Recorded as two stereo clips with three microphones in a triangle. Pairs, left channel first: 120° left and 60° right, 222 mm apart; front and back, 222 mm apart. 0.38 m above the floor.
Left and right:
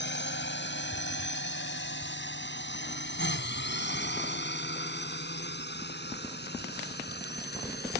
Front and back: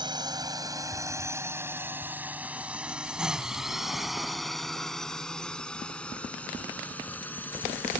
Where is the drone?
115° left; by 8.0 s 80° left.